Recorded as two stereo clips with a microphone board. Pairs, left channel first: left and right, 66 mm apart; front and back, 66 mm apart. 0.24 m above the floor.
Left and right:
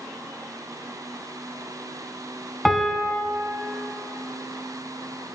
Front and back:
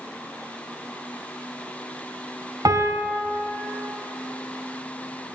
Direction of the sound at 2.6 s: Straight behind.